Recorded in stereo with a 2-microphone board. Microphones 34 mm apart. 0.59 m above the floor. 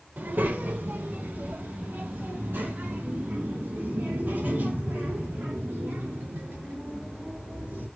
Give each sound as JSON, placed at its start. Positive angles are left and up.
{"t": 0.2, "sound": "a child speaking", "side_deg": -65, "distance_m": 1.1}